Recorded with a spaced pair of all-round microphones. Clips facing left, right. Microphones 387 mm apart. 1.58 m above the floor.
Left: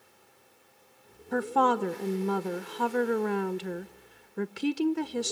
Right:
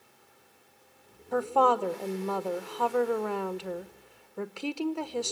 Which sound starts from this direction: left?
A woman speaking, at 1.3 s.